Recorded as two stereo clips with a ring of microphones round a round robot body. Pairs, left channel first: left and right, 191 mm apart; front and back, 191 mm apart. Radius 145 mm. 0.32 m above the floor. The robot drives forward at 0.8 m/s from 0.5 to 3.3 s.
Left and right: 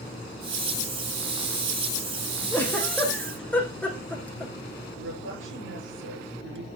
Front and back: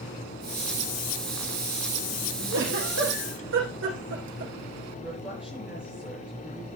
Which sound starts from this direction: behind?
A giggle, at 2.5 s.